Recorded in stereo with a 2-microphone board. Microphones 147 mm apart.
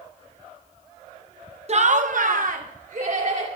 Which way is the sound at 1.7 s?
50° right (ahead or behind).